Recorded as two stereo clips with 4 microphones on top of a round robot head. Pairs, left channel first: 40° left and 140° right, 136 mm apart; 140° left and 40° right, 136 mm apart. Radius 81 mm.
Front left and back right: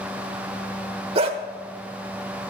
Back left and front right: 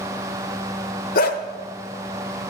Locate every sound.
1.1 s a dog barking: 165° left, 0.9 m